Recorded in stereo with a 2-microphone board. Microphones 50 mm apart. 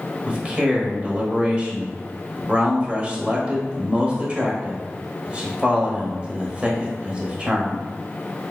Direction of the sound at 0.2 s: 25° right (ahead or behind).